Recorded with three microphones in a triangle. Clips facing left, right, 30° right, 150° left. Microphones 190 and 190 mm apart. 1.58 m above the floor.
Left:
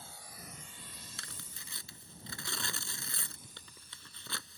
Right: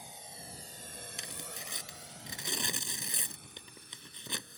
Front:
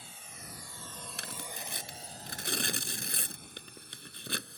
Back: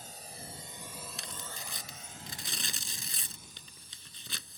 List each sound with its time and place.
0.0 s a drone: 165° right; by 4.6 s 55° right
1.2 s tearing paper: 20° right